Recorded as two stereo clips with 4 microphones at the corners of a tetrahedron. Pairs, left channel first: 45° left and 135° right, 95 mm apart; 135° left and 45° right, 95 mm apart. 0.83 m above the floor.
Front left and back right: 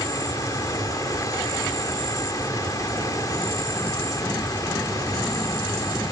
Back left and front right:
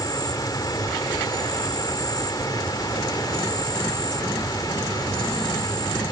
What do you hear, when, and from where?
0.0 s an insect: 95° left